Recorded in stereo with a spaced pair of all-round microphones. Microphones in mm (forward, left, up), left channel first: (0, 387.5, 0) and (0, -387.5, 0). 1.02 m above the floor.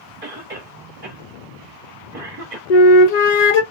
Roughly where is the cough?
Right.